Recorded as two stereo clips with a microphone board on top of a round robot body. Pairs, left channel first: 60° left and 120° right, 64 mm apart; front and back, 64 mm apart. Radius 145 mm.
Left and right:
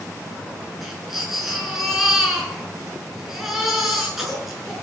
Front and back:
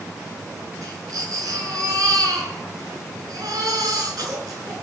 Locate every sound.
0.8 s a baby crying: 155° left, 7 m